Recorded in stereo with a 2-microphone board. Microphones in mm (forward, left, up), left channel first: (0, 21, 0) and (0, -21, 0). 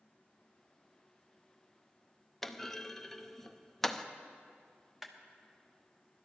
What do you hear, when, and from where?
2.4 s a clunk: 10° left (ahead or behind), 0.5 m
5.0 s a clap: 5° right (ahead or behind), 1.0 m